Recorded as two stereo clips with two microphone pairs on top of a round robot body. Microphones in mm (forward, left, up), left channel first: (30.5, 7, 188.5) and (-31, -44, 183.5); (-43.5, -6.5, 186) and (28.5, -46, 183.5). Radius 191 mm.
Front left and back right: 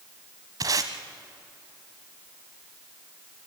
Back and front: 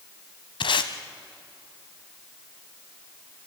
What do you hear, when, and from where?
0.6 s tape being pulled: 170° left, 0.6 m